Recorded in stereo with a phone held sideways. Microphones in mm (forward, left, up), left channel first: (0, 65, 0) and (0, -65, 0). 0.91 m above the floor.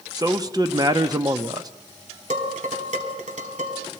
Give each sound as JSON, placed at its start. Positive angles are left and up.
{"t": 0.1, "sound": "a man speaking", "side_deg": -30, "distance_m": 0.8}
{"t": 2.3, "sound": "dishes clattering", "side_deg": -70, "distance_m": 2.5}